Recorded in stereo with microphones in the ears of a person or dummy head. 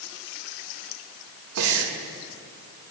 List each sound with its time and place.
1.6 s breathing: 75° right (ahead or behind), 1.6 m